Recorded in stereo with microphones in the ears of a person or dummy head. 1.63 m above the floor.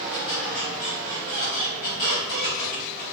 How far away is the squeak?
About 1.1 m.